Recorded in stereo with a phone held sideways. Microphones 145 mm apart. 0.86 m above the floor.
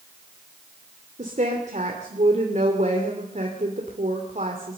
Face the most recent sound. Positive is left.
turn(degrees=-55)  # may be behind; listen again after turning